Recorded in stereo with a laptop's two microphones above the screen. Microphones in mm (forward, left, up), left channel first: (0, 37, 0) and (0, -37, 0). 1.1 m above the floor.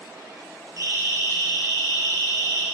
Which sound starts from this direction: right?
A siren, at 0.8 s.